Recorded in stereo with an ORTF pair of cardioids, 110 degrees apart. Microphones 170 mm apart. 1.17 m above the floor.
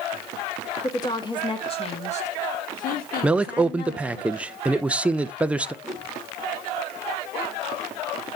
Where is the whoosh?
Straight ahead, 1.8 m.